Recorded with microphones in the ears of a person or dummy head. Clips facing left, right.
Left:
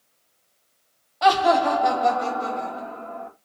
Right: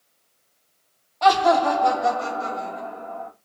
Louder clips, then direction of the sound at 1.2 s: Right 1 dB; 10° left (ahead or behind).